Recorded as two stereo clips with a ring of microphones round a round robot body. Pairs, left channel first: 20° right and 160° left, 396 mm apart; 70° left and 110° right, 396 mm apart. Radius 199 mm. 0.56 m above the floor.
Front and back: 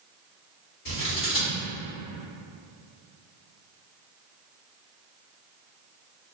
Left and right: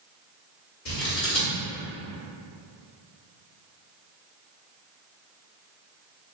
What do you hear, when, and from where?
0.8 s scissors: 15° left, 1.5 m